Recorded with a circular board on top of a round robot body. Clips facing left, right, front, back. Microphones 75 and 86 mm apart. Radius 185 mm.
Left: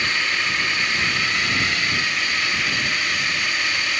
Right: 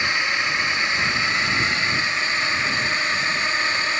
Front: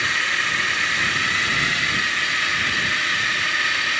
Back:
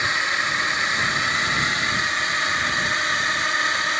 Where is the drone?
135° right; by 4.0 s 130° right.